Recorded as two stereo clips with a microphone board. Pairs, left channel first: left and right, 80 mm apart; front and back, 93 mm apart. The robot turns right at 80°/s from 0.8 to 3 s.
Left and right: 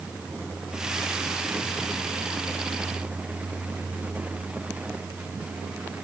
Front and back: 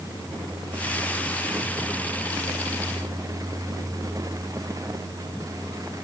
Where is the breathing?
No breathing in this recording.